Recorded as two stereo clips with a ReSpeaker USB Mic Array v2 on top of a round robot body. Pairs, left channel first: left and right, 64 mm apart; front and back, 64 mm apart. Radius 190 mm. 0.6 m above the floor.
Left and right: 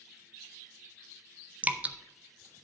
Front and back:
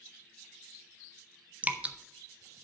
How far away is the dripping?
About 1.0 m.